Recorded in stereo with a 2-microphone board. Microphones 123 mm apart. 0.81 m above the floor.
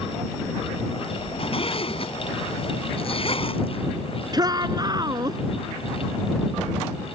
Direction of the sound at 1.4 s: 45° left (ahead or behind).